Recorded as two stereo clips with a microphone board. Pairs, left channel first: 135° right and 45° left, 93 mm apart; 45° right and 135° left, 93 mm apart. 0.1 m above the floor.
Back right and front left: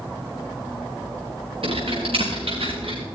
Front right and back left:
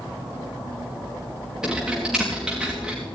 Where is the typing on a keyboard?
55° left, 5 m.